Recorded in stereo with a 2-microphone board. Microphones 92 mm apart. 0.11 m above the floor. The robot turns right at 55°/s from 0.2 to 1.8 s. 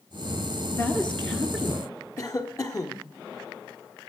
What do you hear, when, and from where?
0.7 s a woman speaking: 140° left, 1.8 m; by 1.9 s 160° right, 1.8 m
2.2 s a cough: 40° left (ahead or behind), 1.5 m